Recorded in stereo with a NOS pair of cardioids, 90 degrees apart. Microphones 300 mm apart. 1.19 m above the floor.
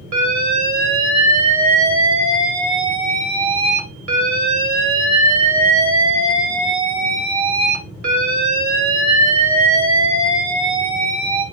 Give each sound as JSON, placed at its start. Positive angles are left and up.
{"t": 0.1, "sound": "an alarm", "azimuth_deg": -65, "distance_m": 2.0}